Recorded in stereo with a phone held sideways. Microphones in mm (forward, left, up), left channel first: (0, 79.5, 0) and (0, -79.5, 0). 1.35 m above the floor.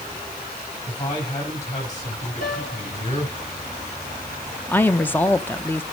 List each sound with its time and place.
0.9 s a man speaking: 45° left (ahead or behind), 7 m
2.4 s a piano: 55° left (ahead or behind), 3.5 m
4.7 s a woman speaking: 10° left (ahead or behind), 0.7 m